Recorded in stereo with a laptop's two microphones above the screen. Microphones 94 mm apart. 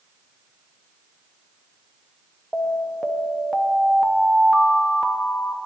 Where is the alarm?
5° left (ahead or behind), 0.5 m.